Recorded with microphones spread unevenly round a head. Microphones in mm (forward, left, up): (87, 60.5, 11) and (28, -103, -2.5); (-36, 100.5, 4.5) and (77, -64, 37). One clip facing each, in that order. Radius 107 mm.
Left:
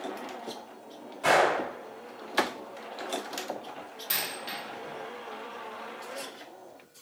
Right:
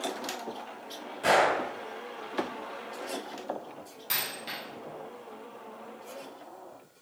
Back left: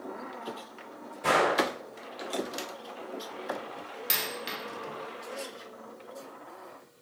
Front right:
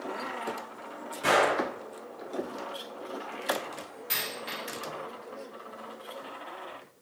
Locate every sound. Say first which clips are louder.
1.2 s a gunshot: left 1 dB, front right 1 dB; 60° right, 1.6 m
4.1 s a dropped coin: left 1 dB, back left 1 dB; 160° left, 0.5 m